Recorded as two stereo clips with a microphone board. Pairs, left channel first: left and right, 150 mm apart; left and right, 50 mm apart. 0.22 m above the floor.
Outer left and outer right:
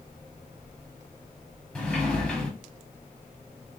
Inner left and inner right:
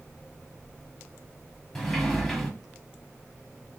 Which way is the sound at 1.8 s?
5° left (ahead or behind).